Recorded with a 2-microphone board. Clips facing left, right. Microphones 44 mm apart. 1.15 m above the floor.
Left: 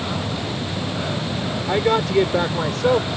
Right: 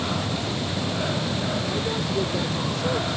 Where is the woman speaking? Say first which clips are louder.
Left 8 dB; 70° left (ahead or behind); by 3.1 s 55° left (ahead or behind).